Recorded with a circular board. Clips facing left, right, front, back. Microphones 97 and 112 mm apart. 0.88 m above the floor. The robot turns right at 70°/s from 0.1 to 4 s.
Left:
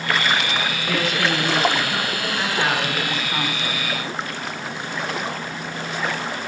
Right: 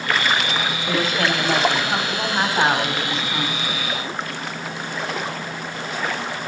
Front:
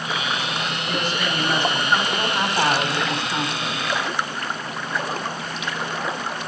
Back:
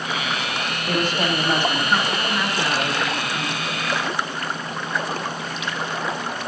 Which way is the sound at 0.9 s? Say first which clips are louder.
Right 1 dB, back 5 dB; 155° right.